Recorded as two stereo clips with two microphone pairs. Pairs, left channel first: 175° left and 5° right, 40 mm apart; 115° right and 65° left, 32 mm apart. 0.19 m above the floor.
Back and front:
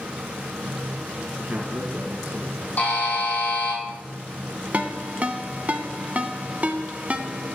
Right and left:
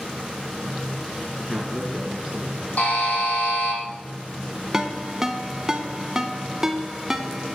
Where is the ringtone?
5° right, 0.8 m.